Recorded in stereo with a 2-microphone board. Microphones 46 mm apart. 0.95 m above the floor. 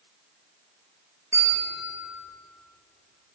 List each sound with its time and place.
1.3 s a bell: 80° right, 1.9 m